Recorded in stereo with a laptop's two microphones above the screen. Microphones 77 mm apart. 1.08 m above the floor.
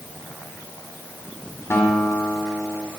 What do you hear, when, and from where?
1.7 s a guitar: 35° left (ahead or behind), 3 m